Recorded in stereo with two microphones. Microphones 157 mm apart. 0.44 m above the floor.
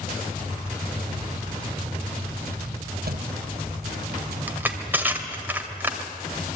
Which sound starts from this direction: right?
A thud, at 3.0 s.